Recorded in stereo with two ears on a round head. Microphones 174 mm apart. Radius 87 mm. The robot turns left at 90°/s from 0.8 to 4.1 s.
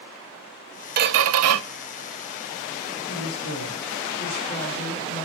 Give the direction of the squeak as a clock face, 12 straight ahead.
1 o'clock.